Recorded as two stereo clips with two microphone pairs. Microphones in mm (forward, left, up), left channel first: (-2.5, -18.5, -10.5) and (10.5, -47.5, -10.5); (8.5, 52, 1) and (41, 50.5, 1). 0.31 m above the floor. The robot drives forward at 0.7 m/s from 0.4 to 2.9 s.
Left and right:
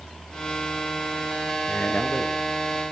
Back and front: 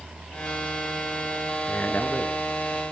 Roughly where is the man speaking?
Behind left.